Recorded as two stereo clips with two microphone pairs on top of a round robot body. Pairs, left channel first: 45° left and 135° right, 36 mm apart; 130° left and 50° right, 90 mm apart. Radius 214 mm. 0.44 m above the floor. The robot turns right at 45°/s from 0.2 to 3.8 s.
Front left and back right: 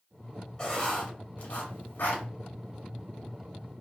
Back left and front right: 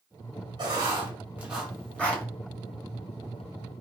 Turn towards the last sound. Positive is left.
turn(degrees=130)